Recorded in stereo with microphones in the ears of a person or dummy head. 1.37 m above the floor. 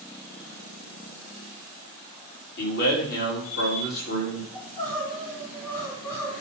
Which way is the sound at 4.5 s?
15° left (ahead or behind).